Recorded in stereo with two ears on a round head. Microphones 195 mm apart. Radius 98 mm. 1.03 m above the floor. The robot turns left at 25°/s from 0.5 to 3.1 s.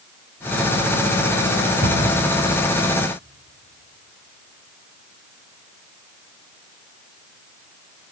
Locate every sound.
1.8 s a cupboard door: 55° right (ahead or behind), 8 m; by 2.2 s 45° right (ahead or behind), 8 m